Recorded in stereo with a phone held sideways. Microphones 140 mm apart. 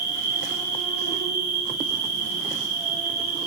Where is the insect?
40° left (ahead or behind), 1.8 m.